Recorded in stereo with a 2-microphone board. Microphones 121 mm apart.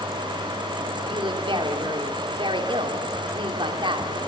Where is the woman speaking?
45° right (ahead or behind), 2.5 m.